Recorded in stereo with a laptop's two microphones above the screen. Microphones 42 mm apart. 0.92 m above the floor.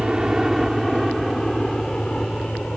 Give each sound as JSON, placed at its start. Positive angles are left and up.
{"t": 0.0, "sound": "a helicopter", "side_deg": -15}